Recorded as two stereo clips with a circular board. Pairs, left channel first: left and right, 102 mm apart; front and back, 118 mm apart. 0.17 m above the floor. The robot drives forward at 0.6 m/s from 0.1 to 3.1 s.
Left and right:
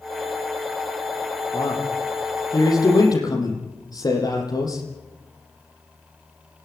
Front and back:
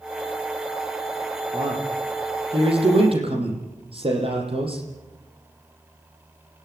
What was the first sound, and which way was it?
A man speaking, 135° left.